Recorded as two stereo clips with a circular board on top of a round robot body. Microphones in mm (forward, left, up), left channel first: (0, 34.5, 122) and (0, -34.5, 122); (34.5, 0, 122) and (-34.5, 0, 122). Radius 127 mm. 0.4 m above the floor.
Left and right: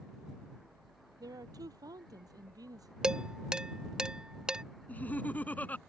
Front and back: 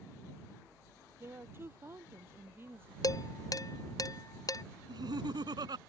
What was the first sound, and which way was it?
A woman speaking, 125° right.